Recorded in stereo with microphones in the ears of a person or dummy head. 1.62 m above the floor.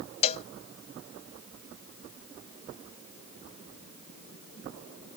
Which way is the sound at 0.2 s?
35° left (ahead or behind).